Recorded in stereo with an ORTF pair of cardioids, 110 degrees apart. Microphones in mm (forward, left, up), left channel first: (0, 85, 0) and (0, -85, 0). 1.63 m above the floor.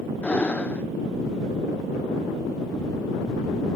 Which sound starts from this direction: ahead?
Breathing, at 0.2 s.